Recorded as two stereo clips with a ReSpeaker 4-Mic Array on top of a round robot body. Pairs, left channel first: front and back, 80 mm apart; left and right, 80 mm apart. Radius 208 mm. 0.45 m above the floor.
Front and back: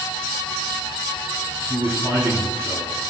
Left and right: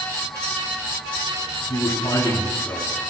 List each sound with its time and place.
1.7 s a man speaking: 130° left, 7.5 m